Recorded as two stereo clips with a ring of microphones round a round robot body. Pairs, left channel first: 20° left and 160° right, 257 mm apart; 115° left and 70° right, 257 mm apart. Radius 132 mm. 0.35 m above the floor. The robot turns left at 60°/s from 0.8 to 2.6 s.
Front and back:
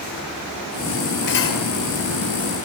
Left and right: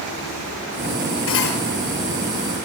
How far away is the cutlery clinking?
About 5 m.